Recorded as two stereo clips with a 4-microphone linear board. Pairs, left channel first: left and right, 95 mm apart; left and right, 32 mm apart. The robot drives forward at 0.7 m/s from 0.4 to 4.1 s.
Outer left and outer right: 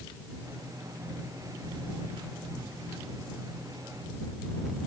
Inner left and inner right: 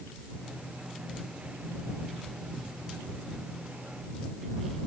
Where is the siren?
I don't hear a siren.